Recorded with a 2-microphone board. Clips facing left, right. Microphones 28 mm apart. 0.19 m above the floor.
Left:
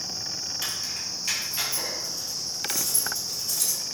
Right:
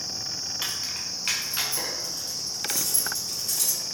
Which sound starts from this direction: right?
Keys jangling, at 0.6 s.